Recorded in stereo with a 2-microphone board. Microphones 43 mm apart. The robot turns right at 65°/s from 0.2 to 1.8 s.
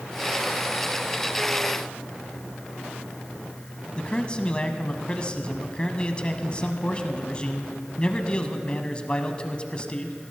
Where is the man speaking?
25° left (ahead or behind), 1.1 m.